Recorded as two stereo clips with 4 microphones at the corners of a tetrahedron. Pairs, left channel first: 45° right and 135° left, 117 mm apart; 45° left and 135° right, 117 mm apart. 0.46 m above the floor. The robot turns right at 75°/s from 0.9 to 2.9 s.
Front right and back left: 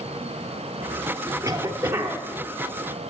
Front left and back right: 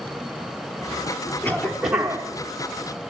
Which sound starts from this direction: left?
A cough, at 1.4 s.